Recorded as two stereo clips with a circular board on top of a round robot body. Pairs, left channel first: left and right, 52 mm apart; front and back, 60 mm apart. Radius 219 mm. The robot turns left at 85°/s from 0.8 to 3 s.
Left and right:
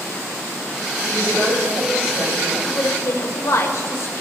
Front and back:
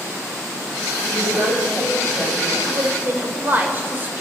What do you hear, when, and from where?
1.0 s a woman speaking: 25° left, 6.5 m; by 2.5 s 100° right, 6.5 m
2.6 s a woman speaking: 155° left, 2 m; by 4.2 s 120° left, 2 m